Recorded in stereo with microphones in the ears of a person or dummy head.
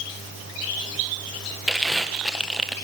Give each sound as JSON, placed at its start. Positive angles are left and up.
{"t": 1.7, "sound": "crumpling", "side_deg": 0, "distance_m": 1.6}